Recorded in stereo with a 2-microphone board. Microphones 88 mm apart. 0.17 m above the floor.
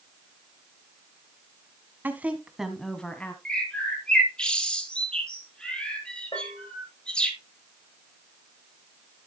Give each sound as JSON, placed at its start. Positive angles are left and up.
{"t": 2.0, "sound": "a woman speaking", "side_deg": -20, "distance_m": 1.5}
{"t": 3.5, "sound": "a bird", "side_deg": 10, "distance_m": 1.8}
{"t": 6.3, "sound": "a bell", "side_deg": 60, "distance_m": 8.0}